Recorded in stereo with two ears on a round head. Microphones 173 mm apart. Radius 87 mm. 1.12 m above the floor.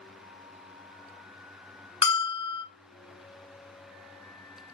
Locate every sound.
2.0 s a bell: 30° left (ahead or behind), 0.7 m